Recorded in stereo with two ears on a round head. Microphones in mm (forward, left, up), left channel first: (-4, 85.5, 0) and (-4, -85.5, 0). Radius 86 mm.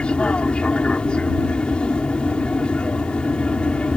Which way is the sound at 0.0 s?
5° left (ahead or behind).